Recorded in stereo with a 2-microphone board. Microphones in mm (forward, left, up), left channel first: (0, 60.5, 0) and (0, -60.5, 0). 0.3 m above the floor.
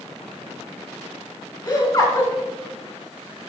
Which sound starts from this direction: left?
Laughter, at 1.6 s.